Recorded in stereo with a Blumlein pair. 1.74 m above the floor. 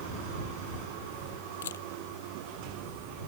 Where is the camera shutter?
65° left.